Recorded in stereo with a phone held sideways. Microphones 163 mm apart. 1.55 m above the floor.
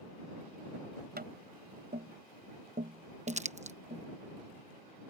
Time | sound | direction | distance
1.2 | tapping | 75° right (ahead or behind) | ?
3.3 | crumpling | 45° right (ahead or behind) | ?